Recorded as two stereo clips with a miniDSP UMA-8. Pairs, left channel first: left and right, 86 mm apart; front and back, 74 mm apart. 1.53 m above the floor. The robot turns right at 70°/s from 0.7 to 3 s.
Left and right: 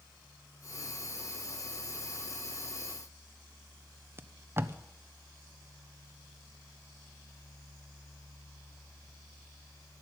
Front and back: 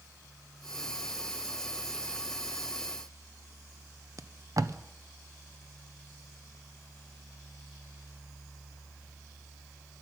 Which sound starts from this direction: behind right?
Tape being pulled, at 4.2 s.